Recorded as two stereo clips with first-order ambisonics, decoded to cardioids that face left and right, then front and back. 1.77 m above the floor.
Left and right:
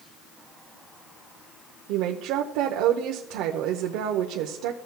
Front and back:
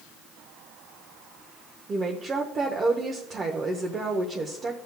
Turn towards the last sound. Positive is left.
turn(degrees=-110)